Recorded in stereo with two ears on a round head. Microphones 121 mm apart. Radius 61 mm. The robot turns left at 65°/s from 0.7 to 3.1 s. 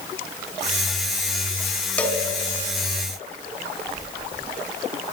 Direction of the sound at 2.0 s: 10° left (ahead or behind).